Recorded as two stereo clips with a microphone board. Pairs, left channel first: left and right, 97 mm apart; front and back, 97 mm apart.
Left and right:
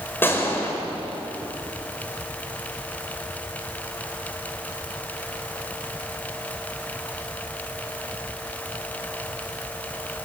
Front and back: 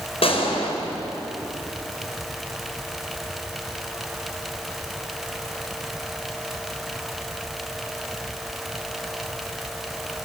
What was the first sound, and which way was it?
A gunshot, 20° left.